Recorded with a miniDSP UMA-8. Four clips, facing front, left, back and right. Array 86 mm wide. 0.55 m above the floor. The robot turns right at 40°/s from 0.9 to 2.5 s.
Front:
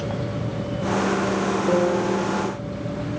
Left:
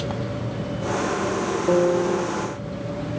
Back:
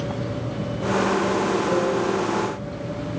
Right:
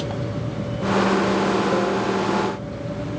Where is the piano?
70° left, 2.5 m; by 2.3 s 95° left, 2.5 m.